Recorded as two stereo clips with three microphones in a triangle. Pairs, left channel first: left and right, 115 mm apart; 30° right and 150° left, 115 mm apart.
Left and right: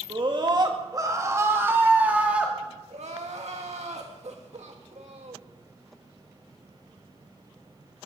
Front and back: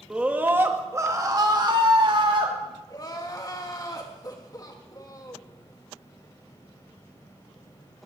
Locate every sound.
0.1 s a scream: 130° right, 1.9 m; by 2.5 s 170° right, 2.5 m
2.9 s crying: 85° right, 1.9 m